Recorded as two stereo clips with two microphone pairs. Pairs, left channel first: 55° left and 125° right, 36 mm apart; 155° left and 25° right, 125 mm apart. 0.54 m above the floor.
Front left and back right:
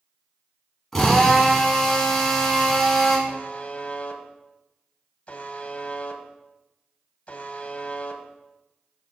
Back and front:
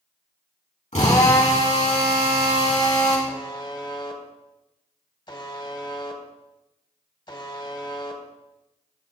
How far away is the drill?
About 3 m.